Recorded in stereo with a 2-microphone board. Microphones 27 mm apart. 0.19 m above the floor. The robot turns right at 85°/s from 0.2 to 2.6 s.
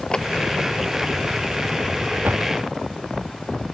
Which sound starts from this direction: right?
A door slam, at 2.2 s.